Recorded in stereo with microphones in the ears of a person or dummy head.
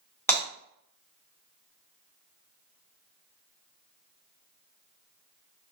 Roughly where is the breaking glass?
Centre.